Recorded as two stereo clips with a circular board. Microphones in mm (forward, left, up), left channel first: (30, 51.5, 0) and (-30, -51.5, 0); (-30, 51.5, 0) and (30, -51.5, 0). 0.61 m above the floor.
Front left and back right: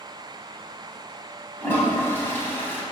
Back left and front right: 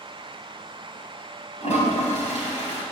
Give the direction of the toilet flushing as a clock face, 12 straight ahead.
8 o'clock.